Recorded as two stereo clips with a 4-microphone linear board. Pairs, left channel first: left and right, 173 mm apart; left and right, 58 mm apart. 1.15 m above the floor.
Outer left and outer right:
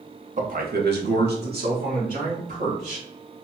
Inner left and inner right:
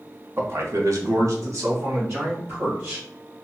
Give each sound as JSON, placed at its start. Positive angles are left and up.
{"t": 0.4, "sound": "a man speaking", "side_deg": -40, "distance_m": 1.0}